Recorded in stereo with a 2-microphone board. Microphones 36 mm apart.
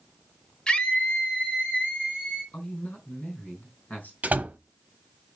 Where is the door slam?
45° right (ahead or behind), 1.0 m.